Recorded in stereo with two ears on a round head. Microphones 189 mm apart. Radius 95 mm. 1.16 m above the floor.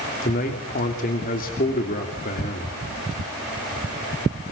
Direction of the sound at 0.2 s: 40° left (ahead or behind).